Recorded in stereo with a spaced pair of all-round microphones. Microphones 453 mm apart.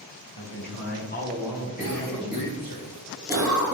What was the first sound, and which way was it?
A man speaking, 50° left (ahead or behind).